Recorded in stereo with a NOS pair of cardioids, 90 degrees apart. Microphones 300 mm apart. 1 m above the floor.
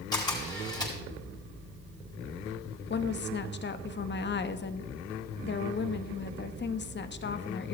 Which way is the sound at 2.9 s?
35° left.